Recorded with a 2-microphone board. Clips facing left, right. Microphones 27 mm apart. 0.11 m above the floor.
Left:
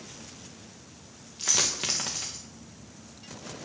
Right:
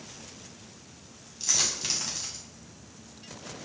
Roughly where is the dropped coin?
Left.